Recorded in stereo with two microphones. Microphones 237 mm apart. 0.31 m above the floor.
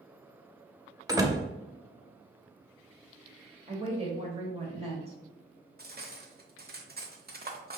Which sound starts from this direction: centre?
A door slam, at 1.1 s.